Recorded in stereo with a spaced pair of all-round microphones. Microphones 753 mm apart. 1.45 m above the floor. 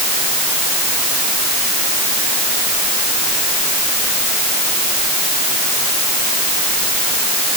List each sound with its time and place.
Only background noise.